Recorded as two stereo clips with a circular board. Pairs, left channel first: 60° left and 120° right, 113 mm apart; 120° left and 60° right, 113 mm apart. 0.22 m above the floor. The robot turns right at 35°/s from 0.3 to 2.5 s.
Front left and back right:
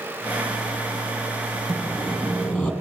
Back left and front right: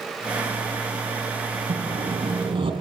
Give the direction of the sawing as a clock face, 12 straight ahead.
1 o'clock.